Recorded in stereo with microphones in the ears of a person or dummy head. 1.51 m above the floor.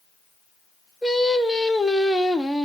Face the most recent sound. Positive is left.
turn(degrees=0)  # may be behind; listen again after turning